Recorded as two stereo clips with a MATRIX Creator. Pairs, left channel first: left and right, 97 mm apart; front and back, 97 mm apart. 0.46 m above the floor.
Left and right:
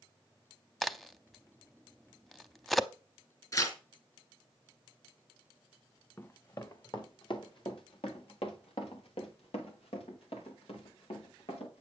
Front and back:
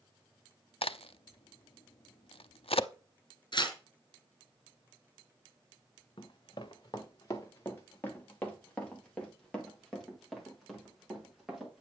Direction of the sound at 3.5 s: 35° left.